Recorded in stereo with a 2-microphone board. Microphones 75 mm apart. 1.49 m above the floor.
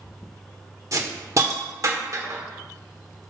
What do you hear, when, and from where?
0.9 s a hiss: 45° right (ahead or behind), 1.5 m